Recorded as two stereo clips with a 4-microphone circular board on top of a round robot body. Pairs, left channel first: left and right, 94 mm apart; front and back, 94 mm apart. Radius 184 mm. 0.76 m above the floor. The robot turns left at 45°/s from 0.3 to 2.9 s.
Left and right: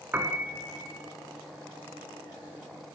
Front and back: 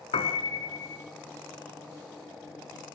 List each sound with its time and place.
0.1 s a piano: 20° right, 1.5 m; by 1.0 s 50° right, 1.5 m